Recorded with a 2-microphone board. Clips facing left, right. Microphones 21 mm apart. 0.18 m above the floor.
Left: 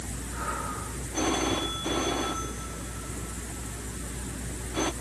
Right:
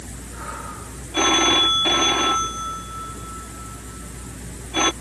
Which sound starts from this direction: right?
A phone ringing, at 1.1 s.